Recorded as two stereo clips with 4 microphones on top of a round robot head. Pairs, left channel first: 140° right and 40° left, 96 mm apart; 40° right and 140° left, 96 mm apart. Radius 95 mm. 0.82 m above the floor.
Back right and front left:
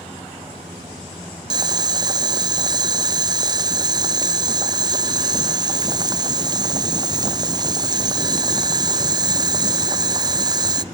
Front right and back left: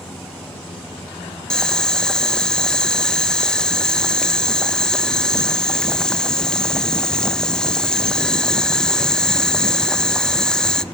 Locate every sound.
1.5 s boiling: 40° left, 0.6 m